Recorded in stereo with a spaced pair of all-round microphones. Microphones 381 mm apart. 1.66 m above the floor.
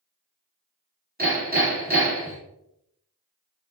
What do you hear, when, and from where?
1.2 s hammering: 25° right (ahead or behind), 4.5 m